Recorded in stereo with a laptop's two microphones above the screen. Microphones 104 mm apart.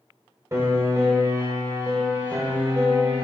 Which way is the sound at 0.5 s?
30° right (ahead or behind).